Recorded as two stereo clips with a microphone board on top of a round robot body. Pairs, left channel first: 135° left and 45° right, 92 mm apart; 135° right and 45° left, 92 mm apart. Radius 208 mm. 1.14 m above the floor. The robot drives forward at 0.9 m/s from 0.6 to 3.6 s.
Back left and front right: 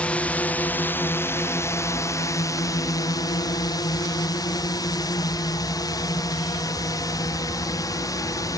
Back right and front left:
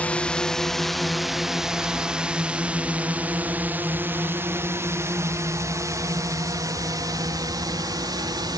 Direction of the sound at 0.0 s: Straight behind.